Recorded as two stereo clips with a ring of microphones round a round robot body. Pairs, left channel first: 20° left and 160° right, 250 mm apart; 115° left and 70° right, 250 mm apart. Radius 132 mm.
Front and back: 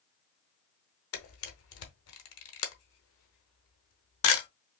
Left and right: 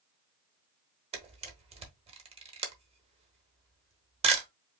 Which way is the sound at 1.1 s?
5° right.